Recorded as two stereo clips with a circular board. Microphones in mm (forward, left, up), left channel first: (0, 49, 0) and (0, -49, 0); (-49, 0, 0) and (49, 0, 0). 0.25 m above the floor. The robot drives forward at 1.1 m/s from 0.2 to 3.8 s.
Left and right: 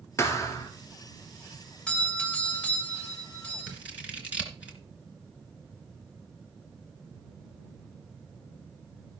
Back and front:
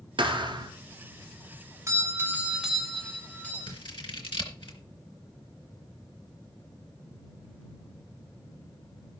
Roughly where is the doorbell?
Ahead left.